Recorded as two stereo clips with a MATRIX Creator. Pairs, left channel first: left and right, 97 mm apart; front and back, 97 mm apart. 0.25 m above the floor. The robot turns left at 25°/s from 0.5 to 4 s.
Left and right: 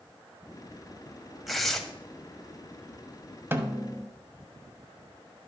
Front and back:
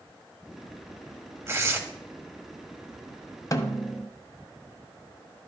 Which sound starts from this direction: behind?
Tearing paper, at 1.5 s.